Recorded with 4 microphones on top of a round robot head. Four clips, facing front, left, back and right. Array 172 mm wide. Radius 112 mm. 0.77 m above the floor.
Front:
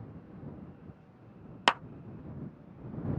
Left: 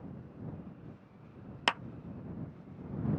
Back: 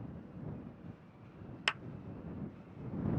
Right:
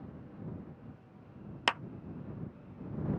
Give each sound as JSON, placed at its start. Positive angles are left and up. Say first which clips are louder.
{"t": 1.7, "sound": "a clap", "louder": "even, front 12 dB", "azimuth_deg": 0}